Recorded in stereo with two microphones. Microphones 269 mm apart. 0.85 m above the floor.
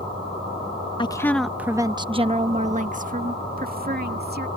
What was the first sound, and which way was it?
A woman speaking, 20° left (ahead or behind).